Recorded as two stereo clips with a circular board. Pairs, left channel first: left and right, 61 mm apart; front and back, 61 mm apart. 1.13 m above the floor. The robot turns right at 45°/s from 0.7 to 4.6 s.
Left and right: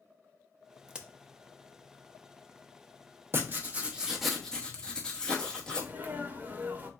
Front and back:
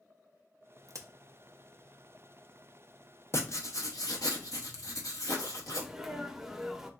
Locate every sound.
0.9 s a crack: 170° right, 0.6 m; by 1.1 s 160° right, 0.6 m
3.3 s writing: 45° right, 0.8 m; by 5.9 s 15° left, 0.8 m
5.7 s a sneeze: 105° right, 0.7 m